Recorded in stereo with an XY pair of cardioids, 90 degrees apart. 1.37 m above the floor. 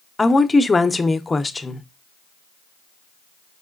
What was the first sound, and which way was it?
A woman speaking, 25° left.